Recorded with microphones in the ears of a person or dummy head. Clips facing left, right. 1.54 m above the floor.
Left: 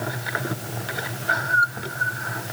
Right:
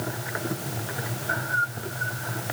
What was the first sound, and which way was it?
Only background noise.